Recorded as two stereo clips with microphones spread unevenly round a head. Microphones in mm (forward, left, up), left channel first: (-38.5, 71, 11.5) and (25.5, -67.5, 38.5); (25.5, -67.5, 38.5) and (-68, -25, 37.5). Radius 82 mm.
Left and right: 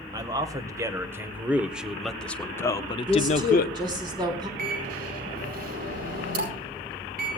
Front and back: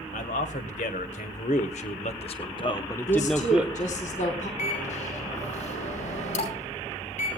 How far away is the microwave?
About 5 m.